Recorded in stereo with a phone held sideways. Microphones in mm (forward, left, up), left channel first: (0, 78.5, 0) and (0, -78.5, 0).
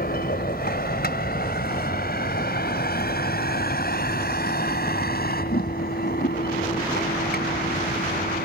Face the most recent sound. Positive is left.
turn(degrees=80)